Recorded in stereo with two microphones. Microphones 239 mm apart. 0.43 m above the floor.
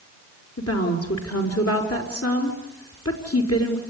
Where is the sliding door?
I don't hear a sliding door.